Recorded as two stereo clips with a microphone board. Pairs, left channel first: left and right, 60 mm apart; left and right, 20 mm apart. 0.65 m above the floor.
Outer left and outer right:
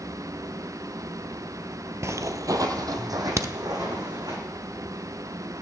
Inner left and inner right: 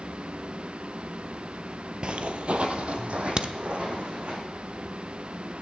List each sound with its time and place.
2.0 s footsteps: 50° right (ahead or behind), 0.8 m; by 4.4 s 75° right (ahead or behind), 3 m
3.4 s a crack: 55° right (ahead or behind), 0.7 m